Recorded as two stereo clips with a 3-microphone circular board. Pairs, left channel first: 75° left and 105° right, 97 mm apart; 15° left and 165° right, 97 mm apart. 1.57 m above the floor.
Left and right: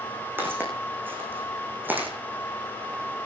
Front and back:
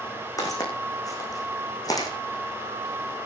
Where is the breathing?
I don't hear breathing.